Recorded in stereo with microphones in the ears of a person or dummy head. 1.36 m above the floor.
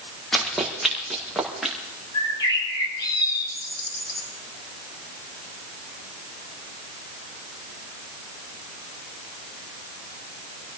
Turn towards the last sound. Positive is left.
turn(degrees=25)  # may be behind; listen again after turning